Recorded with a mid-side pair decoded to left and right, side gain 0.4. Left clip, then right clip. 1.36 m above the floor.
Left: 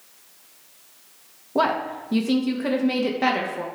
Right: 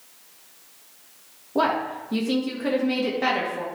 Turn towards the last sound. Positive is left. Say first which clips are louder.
# left 1 dB
turn(degrees=25)